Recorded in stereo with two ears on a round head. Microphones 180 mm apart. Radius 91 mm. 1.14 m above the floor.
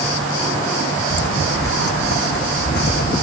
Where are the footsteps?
65° left (ahead or behind); by 3.2 s 55° left (ahead or behind).